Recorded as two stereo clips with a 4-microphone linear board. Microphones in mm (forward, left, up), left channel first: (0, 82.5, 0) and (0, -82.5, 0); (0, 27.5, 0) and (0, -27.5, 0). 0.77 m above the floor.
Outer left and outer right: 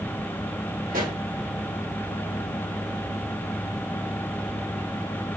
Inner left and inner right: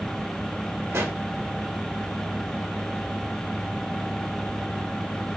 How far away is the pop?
About 1.6 m.